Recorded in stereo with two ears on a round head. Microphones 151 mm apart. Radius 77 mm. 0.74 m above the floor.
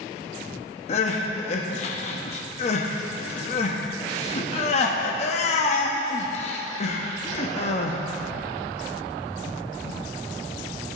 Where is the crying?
40° left (ahead or behind), 0.8 m.